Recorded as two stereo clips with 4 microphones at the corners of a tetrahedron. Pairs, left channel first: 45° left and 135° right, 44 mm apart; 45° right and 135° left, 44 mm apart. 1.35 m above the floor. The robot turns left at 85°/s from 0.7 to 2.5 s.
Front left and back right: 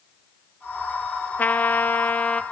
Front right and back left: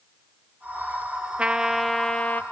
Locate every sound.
1.4 s a trumpet: 80° left, 0.8 m; by 2.4 s 10° right, 0.8 m